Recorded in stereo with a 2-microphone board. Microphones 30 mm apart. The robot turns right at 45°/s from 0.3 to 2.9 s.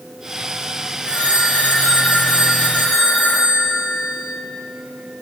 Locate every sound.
1.0 s a phone ringing: 45° left, 5.5 m; by 4.3 s 130° left, 5.5 m